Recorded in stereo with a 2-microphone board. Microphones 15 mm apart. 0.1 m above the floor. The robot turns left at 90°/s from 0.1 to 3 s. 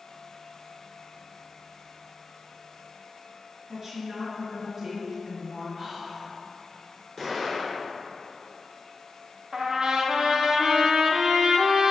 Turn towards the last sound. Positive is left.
turn(degrees=-65)  # may be behind; listen again after turning